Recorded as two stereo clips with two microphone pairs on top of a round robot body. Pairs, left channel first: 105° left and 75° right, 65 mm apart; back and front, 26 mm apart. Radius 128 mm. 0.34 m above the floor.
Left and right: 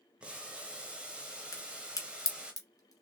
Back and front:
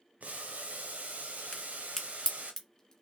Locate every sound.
0.2 s boiling: 5° left, 1.0 m
1.5 s a crack: 115° left, 2 m